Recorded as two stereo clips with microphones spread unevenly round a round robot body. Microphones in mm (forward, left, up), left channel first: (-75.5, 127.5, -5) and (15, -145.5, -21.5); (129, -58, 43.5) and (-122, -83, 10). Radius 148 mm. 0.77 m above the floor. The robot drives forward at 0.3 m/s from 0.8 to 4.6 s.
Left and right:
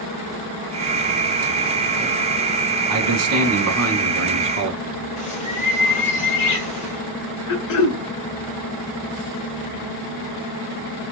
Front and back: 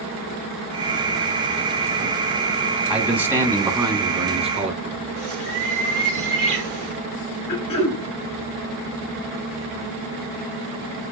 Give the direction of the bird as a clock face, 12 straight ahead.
6 o'clock.